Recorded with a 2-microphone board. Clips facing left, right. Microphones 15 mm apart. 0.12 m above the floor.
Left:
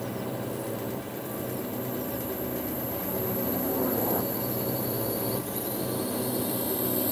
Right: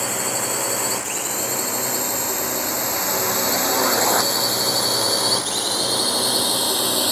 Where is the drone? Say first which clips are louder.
Right 9 dB; 70° right (ahead or behind); by 7.1 s 60° right (ahead or behind).